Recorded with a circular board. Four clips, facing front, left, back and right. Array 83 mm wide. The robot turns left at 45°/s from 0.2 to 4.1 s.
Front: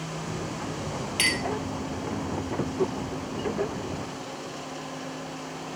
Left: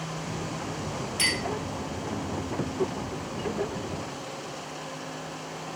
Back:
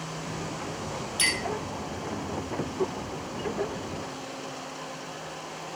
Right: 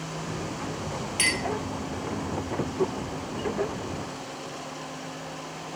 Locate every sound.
1.2 s a clink: 25° right, 3 m; by 1.4 s 30° right, 3 m